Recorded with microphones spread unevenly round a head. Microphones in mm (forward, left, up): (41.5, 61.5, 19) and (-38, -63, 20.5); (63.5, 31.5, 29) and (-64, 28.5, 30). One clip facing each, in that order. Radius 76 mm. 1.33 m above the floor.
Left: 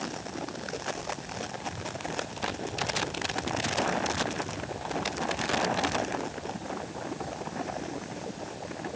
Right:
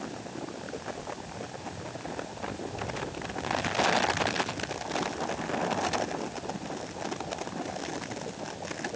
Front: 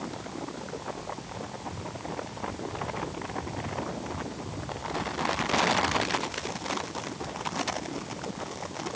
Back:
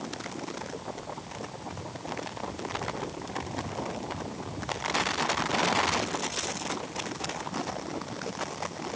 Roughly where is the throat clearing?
I don't hear throat clearing.